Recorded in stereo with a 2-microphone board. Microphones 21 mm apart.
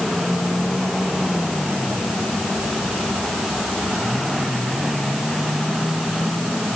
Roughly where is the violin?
No violin in this recording.